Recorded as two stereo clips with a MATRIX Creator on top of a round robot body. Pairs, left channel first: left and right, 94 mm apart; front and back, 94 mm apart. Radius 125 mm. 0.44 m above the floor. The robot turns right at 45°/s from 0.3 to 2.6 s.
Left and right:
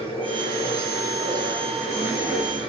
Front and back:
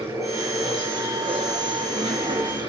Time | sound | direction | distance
0.0 | running water | 125° left | 7 m